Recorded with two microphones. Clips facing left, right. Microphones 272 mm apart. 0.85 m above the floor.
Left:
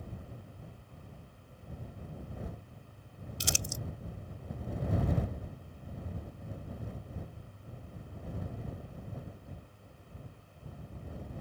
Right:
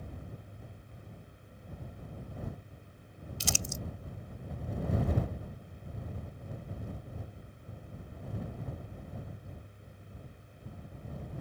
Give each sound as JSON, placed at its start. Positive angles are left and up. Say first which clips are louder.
{"t": 3.4, "sound": "crumpling", "louder": "right 1 dB", "side_deg": 20}